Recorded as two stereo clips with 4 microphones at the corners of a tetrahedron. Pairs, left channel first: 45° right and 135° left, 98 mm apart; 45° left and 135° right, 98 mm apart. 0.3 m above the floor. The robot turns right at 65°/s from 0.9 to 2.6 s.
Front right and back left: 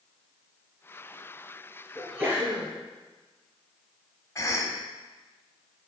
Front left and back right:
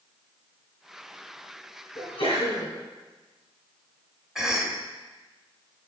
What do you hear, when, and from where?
1.9 s a sneeze: 45° left, 4 m; by 2.7 s 90° left, 4 m
4.3 s a cough: 55° right, 1.2 m